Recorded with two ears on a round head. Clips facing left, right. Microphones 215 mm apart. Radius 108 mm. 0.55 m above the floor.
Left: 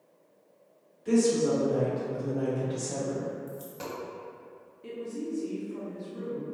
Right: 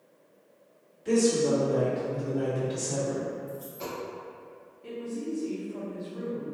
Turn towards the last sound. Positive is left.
turn(degrees=25)  # may be behind; listen again after turning